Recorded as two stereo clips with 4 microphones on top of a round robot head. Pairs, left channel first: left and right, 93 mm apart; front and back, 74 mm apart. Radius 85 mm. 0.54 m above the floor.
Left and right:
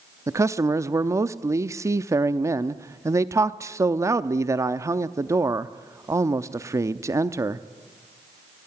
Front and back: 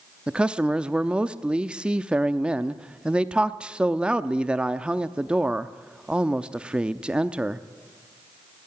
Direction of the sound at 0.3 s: 110° right.